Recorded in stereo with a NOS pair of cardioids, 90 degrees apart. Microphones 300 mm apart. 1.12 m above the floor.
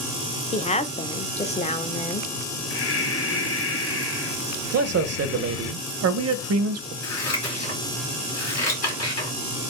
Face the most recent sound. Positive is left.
turn(degrees=55)